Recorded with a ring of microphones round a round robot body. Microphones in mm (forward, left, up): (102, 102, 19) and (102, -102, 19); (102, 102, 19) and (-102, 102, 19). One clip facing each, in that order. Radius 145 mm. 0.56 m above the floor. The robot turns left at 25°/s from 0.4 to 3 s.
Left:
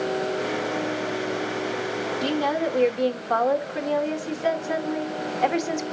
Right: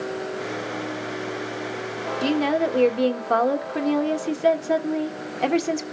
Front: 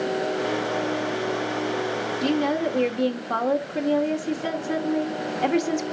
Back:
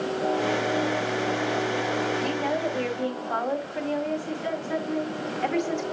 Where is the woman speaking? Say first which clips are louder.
Right 4 dB, front 4 dB; 25° right, 1.8 m; by 5.8 s 45° right, 1.8 m.